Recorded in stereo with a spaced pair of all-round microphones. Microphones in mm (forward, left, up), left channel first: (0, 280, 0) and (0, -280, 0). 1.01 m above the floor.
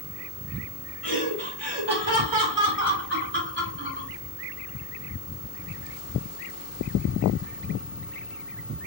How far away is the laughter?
About 1.7 m.